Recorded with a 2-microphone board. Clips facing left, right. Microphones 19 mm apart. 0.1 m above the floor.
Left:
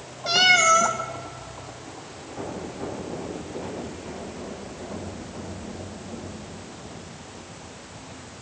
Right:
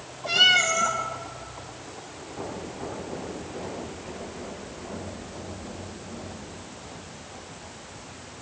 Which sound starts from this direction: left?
A cat meowing, at 0.3 s.